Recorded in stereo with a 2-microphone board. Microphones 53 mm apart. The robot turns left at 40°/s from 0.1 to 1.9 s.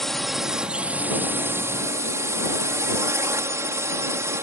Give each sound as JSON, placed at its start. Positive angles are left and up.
{"t": 0.0, "sound": "a drone", "azimuth_deg": 5}